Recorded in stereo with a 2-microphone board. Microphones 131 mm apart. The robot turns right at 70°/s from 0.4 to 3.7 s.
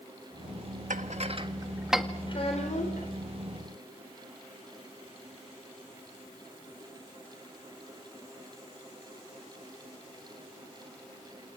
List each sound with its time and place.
0.9 s dishes clattering: 75° right (ahead or behind), 1.5 m; by 2.0 s 5° left (ahead or behind), 1.5 m
2.3 s a child speaking: 35° left, 3.5 m; by 3.1 s 95° left, 3.5 m